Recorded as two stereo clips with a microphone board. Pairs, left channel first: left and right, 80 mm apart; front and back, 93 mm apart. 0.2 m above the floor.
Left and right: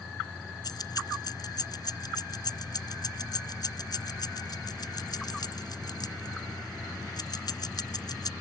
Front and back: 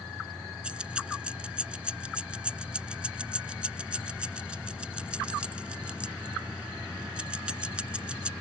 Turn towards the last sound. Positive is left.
turn(degrees=105)